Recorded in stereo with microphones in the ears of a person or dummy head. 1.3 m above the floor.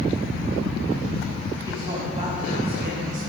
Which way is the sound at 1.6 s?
20° right (ahead or behind).